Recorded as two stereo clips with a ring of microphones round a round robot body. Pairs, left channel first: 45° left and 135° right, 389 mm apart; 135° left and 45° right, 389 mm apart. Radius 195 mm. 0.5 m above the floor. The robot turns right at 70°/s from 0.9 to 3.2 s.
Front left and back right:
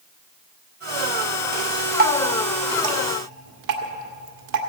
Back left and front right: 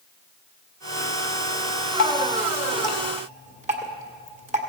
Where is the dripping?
165° left, 1.7 m; by 4.6 s 110° right, 1.7 m.